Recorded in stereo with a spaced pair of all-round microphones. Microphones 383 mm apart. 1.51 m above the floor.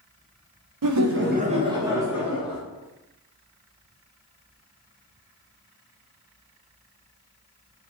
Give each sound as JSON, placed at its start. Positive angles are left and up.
{"t": 0.8, "sound": "laughter", "side_deg": -60, "distance_m": 0.6}